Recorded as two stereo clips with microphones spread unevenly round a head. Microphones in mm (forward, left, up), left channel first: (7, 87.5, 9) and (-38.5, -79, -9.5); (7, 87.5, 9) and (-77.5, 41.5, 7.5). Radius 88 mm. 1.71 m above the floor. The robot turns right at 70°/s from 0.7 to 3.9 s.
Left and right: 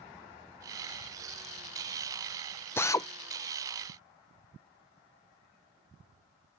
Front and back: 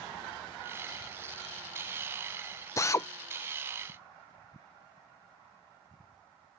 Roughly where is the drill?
Ahead.